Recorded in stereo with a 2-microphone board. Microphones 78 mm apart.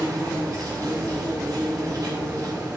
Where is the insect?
50° right (ahead or behind), 7.5 m.